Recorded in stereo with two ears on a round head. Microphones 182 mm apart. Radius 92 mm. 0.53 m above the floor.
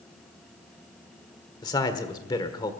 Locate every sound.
1.6 s a man speaking: 20° left (ahead or behind), 1.3 m